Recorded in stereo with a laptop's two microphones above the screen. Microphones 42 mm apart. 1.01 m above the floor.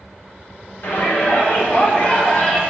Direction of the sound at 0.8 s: 55° left (ahead or behind).